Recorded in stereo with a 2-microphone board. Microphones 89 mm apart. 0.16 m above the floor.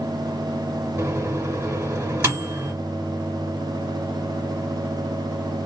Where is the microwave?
25° right (ahead or behind), 1.3 m.